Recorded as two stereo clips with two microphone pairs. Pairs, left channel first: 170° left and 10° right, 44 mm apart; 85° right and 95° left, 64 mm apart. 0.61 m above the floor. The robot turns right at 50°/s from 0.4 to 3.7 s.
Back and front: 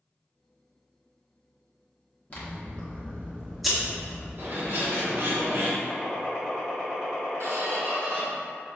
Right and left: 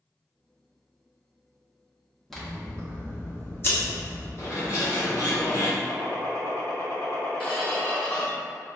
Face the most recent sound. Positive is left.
turn(degrees=-10)